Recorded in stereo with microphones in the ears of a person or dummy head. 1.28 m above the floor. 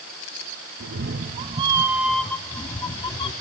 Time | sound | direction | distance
0.8 | a cat meowing | 55° right (ahead or behind) | 1.0 m